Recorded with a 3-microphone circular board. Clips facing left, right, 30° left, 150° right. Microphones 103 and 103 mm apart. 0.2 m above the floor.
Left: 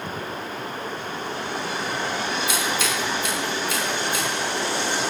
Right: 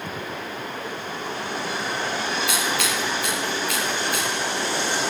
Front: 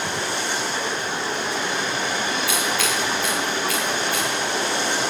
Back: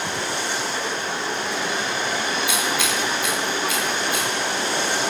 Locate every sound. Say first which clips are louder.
2.5 s scissors: even, even; 80° right, 9 m